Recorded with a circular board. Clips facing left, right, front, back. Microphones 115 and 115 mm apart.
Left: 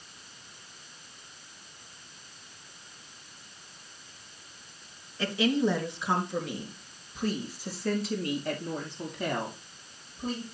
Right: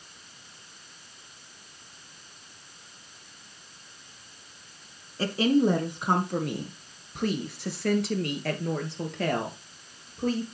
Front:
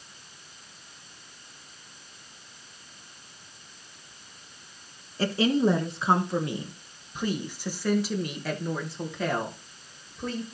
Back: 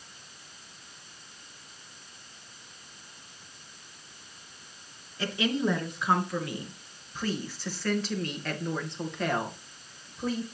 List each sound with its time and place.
5.2 s a woman speaking: 45° right, 2.0 m; by 10.4 s 95° right, 3.5 m